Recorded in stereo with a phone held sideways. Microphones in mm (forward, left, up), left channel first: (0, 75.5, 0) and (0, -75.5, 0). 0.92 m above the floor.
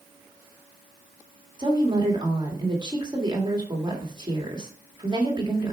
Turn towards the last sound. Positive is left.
turn(degrees=-30)  # may be behind; listen again after turning